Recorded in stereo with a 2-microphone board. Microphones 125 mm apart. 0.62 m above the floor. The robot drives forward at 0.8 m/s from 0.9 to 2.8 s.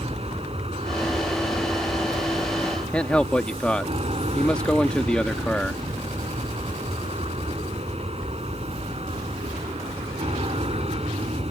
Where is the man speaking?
10° left (ahead or behind).